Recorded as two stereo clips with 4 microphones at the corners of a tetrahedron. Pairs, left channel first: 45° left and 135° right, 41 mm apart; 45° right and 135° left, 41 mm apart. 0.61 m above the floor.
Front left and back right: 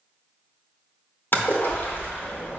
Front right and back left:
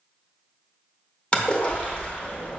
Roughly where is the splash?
Ahead.